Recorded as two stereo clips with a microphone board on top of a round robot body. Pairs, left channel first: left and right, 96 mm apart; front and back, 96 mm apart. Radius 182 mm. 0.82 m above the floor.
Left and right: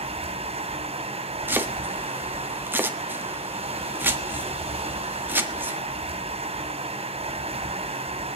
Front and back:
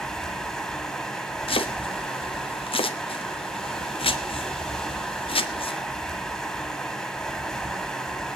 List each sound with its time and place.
0.0 s running water: 85° right, 3 m
1.5 s chopping: 20° right, 1.5 m